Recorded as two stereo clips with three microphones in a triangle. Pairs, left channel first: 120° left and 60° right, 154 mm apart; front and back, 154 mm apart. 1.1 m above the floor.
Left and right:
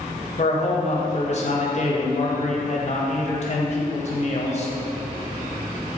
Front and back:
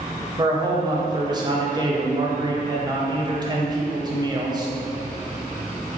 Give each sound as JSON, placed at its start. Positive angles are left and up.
{"t": 0.4, "sound": "a man speaking", "azimuth_deg": 125, "distance_m": 0.6}